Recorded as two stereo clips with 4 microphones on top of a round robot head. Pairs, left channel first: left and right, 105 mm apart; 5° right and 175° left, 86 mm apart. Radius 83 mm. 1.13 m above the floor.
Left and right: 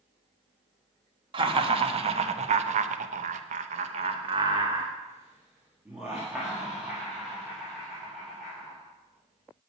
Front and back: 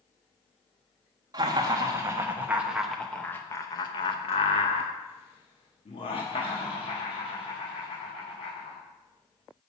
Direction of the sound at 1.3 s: 130° right.